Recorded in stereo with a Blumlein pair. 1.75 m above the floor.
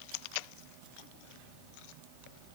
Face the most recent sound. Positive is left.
No sound to turn to.